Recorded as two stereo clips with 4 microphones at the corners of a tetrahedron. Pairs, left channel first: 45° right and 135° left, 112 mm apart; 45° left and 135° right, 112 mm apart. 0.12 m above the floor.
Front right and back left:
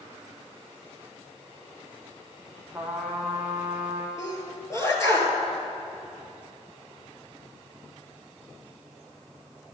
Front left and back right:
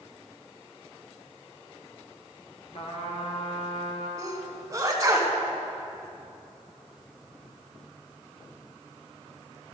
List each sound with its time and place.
2.7 s a trumpet: 60° left, 1.5 m
4.2 s a sneeze: 95° right, 2 m